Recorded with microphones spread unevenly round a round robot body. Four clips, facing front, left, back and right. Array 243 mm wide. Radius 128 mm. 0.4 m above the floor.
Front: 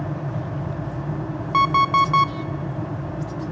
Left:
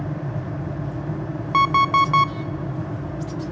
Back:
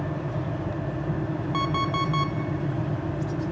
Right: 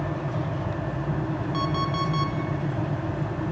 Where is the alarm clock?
45° left, 0.7 m.